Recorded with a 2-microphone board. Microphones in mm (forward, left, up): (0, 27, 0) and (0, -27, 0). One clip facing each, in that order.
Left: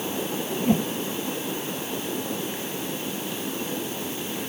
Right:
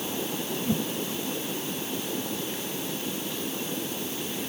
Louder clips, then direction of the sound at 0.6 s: Left 7 dB; 50° left (ahead or behind).